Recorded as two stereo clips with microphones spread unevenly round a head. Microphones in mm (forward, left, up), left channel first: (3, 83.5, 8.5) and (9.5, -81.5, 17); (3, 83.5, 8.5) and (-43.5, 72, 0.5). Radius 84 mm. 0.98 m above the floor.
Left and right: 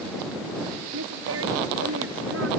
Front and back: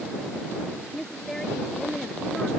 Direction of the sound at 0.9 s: 75° right.